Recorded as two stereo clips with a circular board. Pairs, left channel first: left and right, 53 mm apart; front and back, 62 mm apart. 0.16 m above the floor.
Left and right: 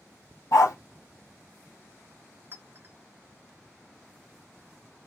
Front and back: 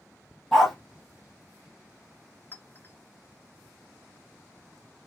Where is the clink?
50° right, 1.0 m.